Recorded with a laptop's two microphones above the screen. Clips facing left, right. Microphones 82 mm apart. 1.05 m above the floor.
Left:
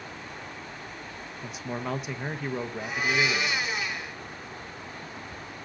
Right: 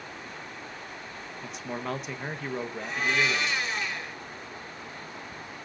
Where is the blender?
5° left (ahead or behind), 1.5 m.